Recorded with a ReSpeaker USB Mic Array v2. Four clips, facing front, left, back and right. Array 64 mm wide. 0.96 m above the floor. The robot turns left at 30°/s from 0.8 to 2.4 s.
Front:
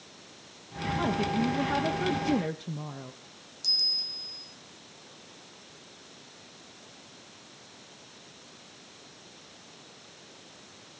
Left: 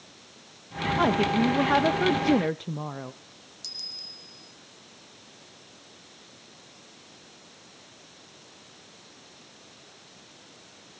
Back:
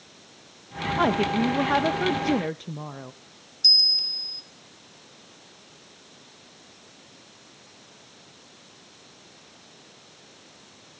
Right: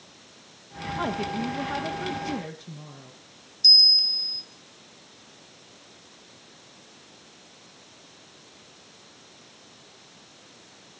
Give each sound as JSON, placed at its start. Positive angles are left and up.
{"t": 1.0, "sound": "a woman speaking", "azimuth_deg": 160, "distance_m": 0.8}
{"t": 3.6, "sound": "a bell", "azimuth_deg": -140, "distance_m": 3.5}